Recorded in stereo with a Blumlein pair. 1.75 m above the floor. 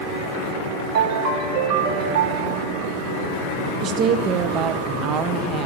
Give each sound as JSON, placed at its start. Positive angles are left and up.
{"t": 0.9, "sound": "a ringtone", "azimuth_deg": -50, "distance_m": 1.9}
{"t": 3.8, "sound": "a woman speaking", "azimuth_deg": -30, "distance_m": 1.3}